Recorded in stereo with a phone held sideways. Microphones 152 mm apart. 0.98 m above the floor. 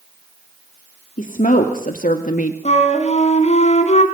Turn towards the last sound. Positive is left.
turn(degrees=50)  # may be behind; listen again after turning